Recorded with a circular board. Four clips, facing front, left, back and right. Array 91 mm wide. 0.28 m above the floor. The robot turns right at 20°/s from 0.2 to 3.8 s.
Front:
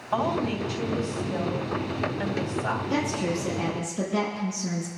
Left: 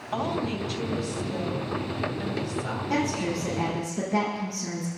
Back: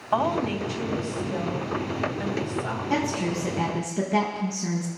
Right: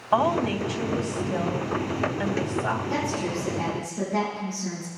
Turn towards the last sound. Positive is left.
turn(degrees=165)